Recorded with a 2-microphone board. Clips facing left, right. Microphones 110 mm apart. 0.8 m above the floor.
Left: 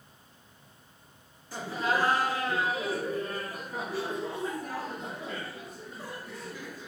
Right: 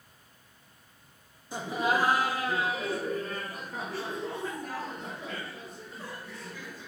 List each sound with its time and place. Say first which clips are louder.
1.5 s laughter: right 1 dB; 20° right (ahead or behind), 0.8 m; by 6.9 s 25° left (ahead or behind), 2.5 m